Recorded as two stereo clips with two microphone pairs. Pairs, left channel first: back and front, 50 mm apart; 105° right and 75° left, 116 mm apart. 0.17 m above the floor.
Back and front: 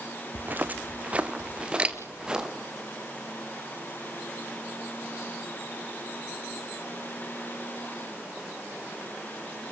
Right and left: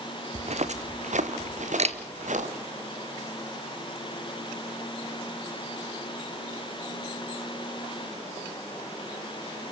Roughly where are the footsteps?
Ahead left.